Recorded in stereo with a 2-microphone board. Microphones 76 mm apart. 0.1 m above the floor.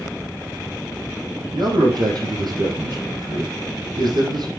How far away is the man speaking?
About 3.5 m.